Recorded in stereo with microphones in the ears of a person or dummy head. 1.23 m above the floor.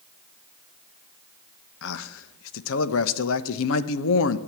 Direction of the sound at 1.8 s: 70° left (ahead or behind).